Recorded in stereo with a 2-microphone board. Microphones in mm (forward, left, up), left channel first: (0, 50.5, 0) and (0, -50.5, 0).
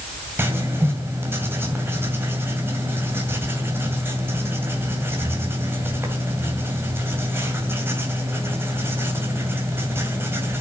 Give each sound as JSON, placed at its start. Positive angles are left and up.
{"t": 0.4, "sound": "writing", "side_deg": -25, "distance_m": 2.5}